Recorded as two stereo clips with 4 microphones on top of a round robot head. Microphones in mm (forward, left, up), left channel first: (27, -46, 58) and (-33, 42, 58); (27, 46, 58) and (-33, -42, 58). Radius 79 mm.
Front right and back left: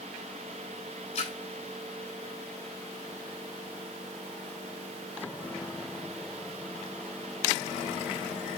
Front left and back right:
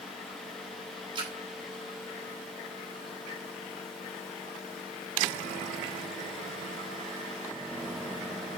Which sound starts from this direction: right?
A splash, at 1.1 s.